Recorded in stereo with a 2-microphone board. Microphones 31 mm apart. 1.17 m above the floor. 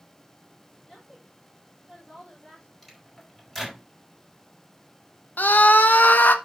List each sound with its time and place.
0.8 s a woman speaking: 20° left (ahead or behind), 4 m
2.8 s a microwave: 10° left (ahead or behind), 4.5 m
5.4 s a scream: 80° left, 0.9 m